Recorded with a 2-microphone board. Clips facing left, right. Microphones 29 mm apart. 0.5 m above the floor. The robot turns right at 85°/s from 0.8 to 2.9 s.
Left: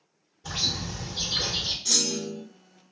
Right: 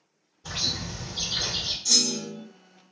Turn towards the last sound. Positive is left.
turn(degrees=170)